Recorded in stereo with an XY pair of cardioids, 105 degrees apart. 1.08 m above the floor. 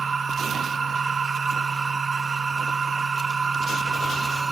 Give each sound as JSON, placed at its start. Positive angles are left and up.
{"t": 0.0, "sound": "a machine running", "azimuth_deg": -35, "distance_m": 1.2}